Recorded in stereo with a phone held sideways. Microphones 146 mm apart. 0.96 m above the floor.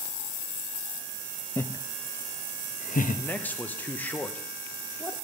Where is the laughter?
15° left (ahead or behind), 0.7 m; by 3.2 s 65° left (ahead or behind), 1.0 m.